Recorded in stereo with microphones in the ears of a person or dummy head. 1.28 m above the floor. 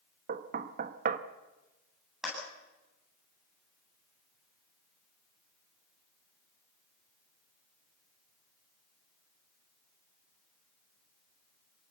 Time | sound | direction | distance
0.3 | knocking | 50° right (ahead or behind) | 1.1 m
2.2 | a clap | centre (ahead or behind) | 9.5 m